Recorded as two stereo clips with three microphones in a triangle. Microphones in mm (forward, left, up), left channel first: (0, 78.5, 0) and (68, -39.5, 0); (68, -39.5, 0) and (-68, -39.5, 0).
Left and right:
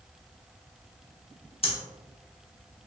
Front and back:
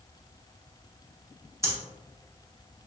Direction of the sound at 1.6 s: 120° left.